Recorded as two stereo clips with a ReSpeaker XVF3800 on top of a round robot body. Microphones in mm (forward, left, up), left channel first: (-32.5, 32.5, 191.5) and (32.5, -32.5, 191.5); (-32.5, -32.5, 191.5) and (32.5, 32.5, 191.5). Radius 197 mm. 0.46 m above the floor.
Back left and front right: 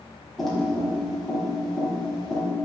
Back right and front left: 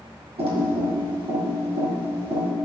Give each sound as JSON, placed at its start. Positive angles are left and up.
{"t": 0.4, "sound": "typing on a keyboard", "azimuth_deg": 45, "distance_m": 2.5}